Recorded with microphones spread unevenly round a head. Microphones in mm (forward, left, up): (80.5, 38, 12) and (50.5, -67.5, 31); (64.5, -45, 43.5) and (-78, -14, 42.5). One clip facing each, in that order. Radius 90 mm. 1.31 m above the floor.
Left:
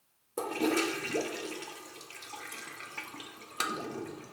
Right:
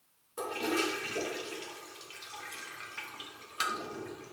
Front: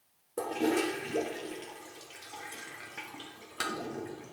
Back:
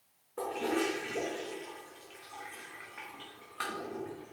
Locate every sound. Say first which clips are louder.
0.4 s a toilet flushing: left 3 dB, front 3 dB; 35° left, 0.8 m